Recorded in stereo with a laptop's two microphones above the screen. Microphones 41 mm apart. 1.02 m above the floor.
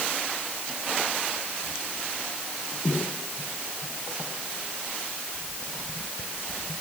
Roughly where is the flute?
No flute in this recording.